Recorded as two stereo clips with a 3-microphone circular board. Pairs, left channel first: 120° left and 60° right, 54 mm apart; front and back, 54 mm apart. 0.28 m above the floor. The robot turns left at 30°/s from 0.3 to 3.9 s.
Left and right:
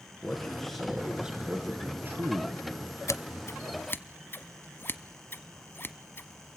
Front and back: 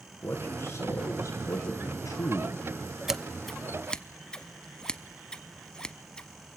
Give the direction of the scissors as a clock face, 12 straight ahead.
9 o'clock.